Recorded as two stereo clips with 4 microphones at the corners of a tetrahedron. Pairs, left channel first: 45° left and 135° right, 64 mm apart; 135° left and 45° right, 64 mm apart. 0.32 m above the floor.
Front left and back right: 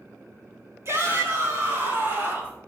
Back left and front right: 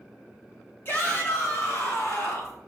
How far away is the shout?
About 3 m.